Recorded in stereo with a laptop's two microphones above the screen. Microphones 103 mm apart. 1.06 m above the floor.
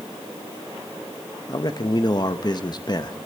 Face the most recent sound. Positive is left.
turn(degrees=40)  # may be behind; listen again after turning